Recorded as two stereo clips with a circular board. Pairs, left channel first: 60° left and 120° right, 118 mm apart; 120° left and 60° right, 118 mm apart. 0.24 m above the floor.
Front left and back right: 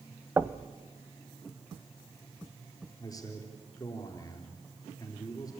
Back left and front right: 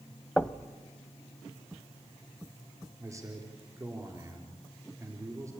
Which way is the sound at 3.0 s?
5° left.